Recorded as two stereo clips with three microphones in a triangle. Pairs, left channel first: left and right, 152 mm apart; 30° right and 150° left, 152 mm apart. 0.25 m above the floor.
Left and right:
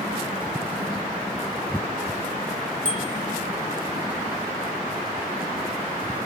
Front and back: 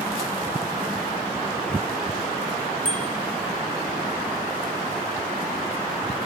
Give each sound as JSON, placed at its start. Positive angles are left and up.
{"t": 2.9, "sound": "a bicycle bell", "azimuth_deg": -60, "distance_m": 6.0}